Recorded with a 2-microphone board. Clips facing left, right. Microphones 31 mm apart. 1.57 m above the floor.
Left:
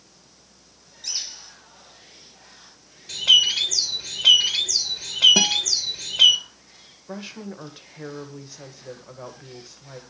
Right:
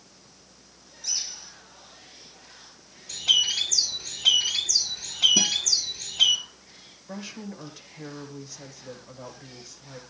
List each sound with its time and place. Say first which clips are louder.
1.0 s a bird: left 1 dB; 60° left (ahead or behind), 5 m
3.1 s a bird: left 6 dB; 60° left (ahead or behind), 2.5 m
5.4 s a guitar: left 5 dB; 85° left, 1.9 m
7.1 s a woman speaking: left 2 dB; 25° left (ahead or behind), 1.9 m